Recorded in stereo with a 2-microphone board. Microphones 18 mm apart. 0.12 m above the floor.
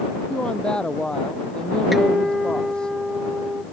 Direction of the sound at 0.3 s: 60° left (ahead or behind).